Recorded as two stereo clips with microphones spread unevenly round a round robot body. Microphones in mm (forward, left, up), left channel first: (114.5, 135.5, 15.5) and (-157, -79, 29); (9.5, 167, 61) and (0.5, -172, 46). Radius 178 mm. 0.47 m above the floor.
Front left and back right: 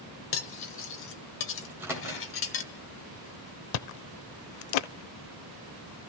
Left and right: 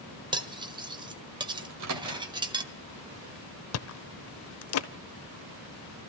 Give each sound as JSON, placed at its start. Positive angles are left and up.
{"t": 0.3, "sound": "cutlery clinking", "azimuth_deg": -15, "distance_m": 1.4}
{"t": 1.6, "sound": "a microwave", "azimuth_deg": -55, "distance_m": 2.5}
{"t": 3.7, "sound": "chewing", "azimuth_deg": 40, "distance_m": 0.6}